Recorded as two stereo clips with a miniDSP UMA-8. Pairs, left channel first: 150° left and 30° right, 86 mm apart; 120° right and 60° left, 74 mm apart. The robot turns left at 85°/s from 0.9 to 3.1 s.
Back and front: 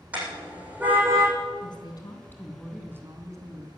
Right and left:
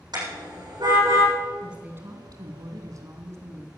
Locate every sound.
0.1 s a car horn: 40° left, 7.5 m; by 1.3 s 5° left, 7.5 m
1.6 s a woman speaking: 145° left, 3 m; by 3.7 s 20° left, 3 m